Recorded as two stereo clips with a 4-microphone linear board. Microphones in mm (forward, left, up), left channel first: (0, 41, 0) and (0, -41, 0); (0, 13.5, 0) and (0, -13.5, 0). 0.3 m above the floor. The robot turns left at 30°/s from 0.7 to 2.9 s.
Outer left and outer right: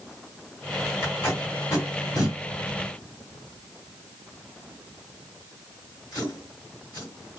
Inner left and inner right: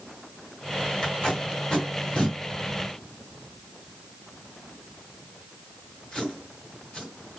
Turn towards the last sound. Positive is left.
turn(degrees=55)  # may be behind; listen again after turning